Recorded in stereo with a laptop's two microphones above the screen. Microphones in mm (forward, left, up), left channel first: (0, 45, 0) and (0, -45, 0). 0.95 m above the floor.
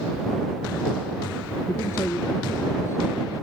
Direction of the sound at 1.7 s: 30° left (ahead or behind).